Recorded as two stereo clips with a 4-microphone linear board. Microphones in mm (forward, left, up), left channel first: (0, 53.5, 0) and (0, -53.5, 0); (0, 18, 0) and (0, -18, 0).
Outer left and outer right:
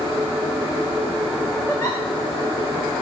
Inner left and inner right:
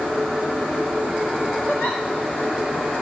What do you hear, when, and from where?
1.7 s a giggle: 25° left (ahead or behind), 3.5 m